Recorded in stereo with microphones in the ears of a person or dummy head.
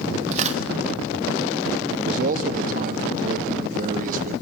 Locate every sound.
0.3 s tearing paper: 35° right (ahead or behind), 1.1 m
1.9 s a man speaking: 45° right (ahead or behind), 1.3 m